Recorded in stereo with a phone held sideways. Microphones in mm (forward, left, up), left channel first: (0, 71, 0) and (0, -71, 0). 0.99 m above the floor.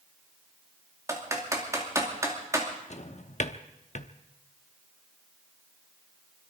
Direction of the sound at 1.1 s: 20° right (ahead or behind).